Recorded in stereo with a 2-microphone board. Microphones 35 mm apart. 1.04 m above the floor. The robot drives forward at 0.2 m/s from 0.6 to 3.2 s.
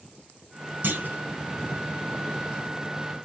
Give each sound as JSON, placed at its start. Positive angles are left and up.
{"t": 0.8, "sound": "a clunk", "side_deg": -70, "distance_m": 1.9}